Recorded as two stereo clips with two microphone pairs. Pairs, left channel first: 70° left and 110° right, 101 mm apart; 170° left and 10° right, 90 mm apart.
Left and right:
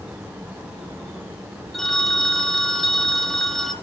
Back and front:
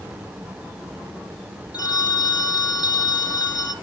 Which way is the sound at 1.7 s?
155° left.